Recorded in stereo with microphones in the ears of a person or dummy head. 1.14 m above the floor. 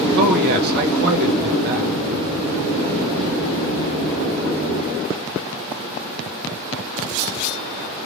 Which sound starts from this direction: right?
A man speaking, at 0.1 s.